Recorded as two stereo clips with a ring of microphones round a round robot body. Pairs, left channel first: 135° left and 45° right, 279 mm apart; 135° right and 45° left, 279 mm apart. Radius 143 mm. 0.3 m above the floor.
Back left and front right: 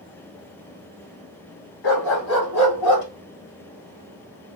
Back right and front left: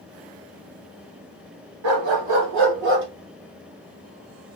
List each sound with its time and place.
1.8 s a dog barking: 80° left, 1.3 m; by 3.1 s 100° left, 2 m